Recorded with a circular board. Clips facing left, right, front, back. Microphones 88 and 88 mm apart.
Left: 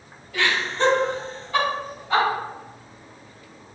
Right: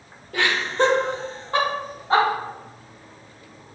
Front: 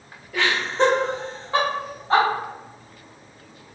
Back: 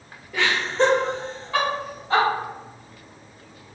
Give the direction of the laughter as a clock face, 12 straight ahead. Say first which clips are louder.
Right 2 dB, even; 3 o'clock.